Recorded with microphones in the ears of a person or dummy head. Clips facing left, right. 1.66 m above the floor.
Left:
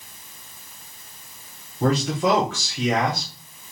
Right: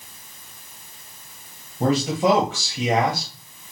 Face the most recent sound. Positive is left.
turn(degrees=-30)  # may be behind; listen again after turning